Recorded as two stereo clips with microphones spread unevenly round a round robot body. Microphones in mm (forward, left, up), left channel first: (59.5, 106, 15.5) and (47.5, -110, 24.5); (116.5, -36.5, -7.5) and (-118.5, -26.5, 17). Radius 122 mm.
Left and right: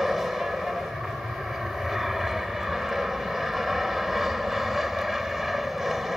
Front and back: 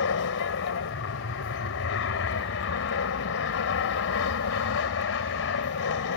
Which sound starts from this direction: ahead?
An aircraft, at 0.0 s.